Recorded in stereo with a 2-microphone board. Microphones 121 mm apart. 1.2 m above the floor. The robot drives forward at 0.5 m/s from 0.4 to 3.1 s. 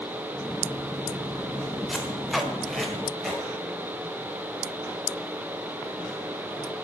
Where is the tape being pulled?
Centre (ahead or behind), 1.4 m.